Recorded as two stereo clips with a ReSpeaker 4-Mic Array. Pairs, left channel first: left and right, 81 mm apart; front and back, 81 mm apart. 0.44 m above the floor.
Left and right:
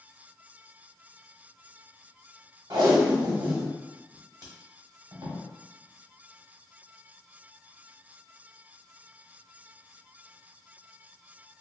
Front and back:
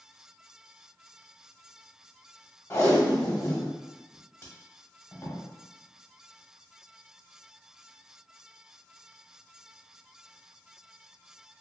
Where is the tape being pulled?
60° right, 0.8 m.